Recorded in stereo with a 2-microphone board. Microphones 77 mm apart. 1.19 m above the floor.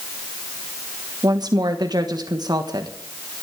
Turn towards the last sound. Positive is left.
turn(degrees=-60)  # may be behind; listen again after turning